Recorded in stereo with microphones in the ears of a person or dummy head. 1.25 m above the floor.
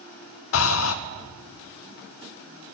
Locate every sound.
0.5 s breathing: 75° left (ahead or behind), 0.5 m